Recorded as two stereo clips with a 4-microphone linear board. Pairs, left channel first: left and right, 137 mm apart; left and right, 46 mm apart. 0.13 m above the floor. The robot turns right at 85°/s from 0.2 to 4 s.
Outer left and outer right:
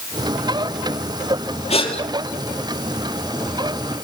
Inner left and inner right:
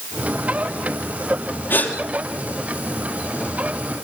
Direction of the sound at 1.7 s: 50° left (ahead or behind).